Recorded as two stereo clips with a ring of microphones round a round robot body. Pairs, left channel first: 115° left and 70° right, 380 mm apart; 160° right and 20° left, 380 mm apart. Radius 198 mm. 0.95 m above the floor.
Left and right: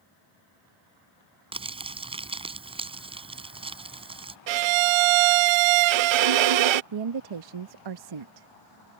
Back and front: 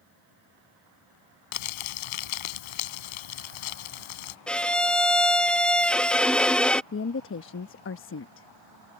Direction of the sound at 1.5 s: 145° right.